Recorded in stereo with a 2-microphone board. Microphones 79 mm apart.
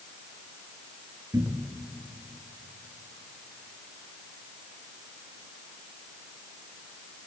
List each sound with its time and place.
1.3 s a cupboard door: 35° right (ahead or behind), 1.7 m